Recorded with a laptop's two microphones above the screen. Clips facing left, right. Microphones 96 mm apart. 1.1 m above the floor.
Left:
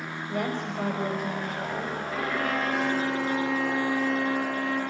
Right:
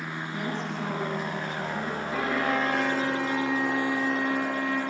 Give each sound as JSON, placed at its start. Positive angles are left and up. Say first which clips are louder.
{"t": 0.3, "sound": "a woman speaking", "louder": "left 4 dB", "side_deg": 85, "distance_m": 5.5}
{"t": 2.1, "sound": "a violin", "louder": "right 2 dB", "side_deg": -25, "distance_m": 5.5}